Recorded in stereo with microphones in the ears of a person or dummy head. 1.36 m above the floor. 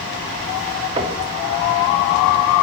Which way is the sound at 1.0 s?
30° right (ahead or behind).